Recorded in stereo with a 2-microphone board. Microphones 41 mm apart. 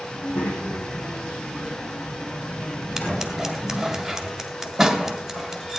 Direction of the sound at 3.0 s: 10° right (ahead or behind).